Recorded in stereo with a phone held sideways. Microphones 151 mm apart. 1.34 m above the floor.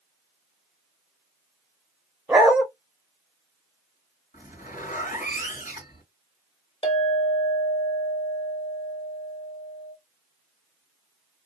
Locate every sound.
2.3 s a dog barking: 5° right (ahead or behind), 0.8 m
4.3 s a zipper: 60° left (ahead or behind), 1.9 m
6.8 s a clink: 35° left (ahead or behind), 1.7 m